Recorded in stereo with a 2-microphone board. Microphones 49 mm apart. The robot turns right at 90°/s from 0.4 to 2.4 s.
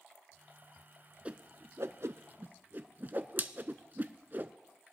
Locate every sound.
1.2 s a whoosh: 25° right (ahead or behind), 0.6 m; by 4.5 s 45° right (ahead or behind), 0.6 m